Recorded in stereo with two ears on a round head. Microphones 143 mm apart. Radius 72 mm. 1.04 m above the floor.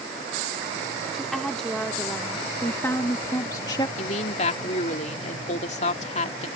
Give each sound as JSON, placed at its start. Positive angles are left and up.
{"t": 1.1, "sound": "a woman speaking", "side_deg": 0}
{"t": 4.0, "sound": "a woman speaking", "side_deg": 45}